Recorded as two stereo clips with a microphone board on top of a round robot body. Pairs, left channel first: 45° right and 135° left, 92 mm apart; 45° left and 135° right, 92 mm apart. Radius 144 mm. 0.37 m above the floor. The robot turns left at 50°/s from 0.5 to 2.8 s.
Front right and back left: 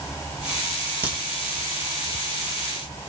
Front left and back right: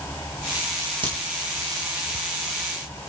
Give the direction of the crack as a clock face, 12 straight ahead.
5 o'clock.